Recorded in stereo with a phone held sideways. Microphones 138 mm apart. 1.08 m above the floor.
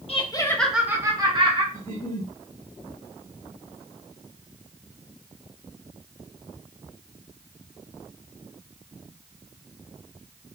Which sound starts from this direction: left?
Laughter, at 0.1 s.